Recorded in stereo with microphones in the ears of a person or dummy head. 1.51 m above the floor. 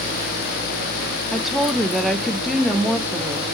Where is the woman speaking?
Centre (ahead or behind), 0.9 m.